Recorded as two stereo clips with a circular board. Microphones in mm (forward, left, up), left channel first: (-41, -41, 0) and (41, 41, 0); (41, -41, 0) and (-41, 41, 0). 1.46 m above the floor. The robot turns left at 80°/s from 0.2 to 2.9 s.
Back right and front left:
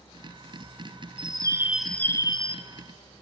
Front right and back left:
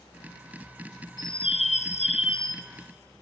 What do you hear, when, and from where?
1.2 s a bird: 10° left, 0.7 m; by 2.6 s 110° right, 0.7 m